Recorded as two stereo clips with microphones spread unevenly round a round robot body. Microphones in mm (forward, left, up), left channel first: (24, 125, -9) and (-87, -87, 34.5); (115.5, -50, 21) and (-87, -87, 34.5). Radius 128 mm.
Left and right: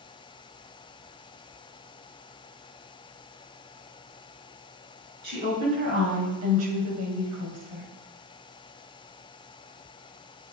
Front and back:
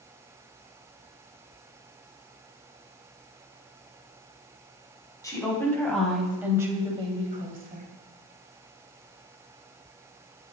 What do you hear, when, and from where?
5.2 s a woman speaking: 60° right, 3.5 m; by 7.9 s 140° right, 2.5 m